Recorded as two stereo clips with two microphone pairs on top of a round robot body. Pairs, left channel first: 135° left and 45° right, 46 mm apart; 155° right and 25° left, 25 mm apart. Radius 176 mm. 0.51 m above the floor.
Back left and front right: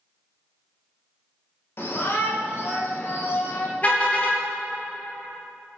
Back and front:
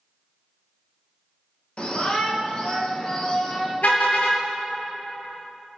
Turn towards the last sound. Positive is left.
turn(degrees=-170)